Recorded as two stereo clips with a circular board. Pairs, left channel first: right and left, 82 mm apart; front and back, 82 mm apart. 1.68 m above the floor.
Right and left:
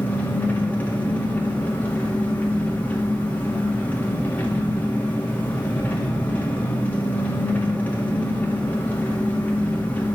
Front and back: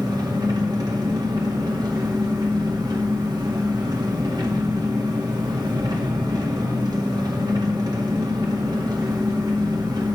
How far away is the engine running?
About 1.8 m.